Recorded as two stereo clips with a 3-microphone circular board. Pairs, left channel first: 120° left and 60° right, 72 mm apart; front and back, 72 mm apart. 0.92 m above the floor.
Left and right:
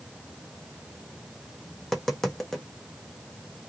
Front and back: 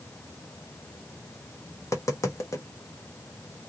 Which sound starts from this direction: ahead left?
Tapping, at 1.8 s.